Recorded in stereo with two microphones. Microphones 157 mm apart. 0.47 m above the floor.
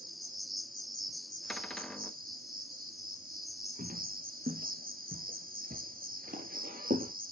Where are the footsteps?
75° right (ahead or behind), 3.5 m; by 7.1 s 70° right (ahead or behind), 5.5 m.